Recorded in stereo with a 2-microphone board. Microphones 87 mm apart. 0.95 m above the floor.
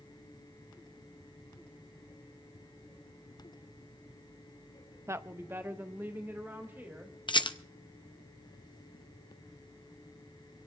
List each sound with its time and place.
5.1 s a woman speaking: 30° right (ahead or behind), 0.5 m; by 7.2 s 25° right (ahead or behind), 3.5 m
7.3 s a rattle: 65° left (ahead or behind), 0.7 m